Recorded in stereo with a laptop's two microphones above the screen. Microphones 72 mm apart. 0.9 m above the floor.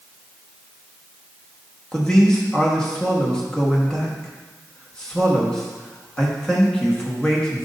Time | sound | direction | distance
1.9 | a man speaking | 10° left (ahead or behind) | 1.2 m